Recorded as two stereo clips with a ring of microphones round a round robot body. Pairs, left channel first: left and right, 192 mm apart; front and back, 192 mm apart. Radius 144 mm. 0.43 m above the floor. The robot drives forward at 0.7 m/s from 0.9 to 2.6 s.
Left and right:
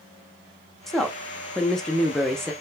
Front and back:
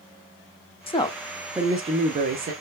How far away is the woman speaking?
About 0.8 m.